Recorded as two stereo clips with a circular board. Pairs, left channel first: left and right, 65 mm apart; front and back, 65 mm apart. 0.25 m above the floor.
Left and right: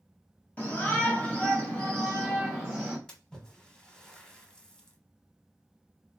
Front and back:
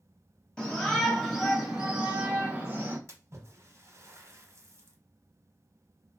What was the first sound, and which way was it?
A shout, 60° left.